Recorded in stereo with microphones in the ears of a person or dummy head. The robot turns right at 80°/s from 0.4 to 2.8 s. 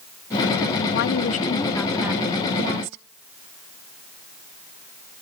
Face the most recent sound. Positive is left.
turn(degrees=-110)